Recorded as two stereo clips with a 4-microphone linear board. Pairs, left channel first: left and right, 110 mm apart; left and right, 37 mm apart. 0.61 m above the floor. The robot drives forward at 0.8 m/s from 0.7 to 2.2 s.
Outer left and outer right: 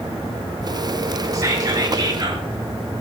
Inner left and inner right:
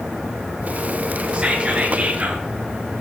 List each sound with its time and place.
1.3 s whispering: 30° right (ahead or behind), 2 m; by 2.5 s 40° right (ahead or behind), 1.7 m